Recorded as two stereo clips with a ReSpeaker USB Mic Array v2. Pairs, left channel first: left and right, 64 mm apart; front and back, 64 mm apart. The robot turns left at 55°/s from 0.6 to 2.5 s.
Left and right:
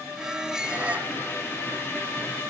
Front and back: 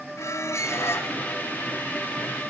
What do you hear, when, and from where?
0.2 s a squeak: 15° right, 1.4 m; by 1.1 s 40° right, 1.4 m